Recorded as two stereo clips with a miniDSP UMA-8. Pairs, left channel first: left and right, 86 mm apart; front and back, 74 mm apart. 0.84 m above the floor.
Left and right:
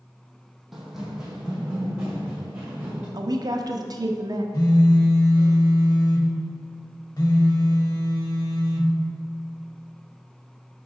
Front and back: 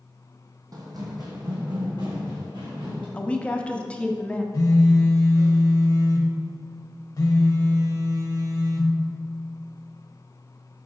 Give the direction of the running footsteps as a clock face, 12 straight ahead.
6 o'clock.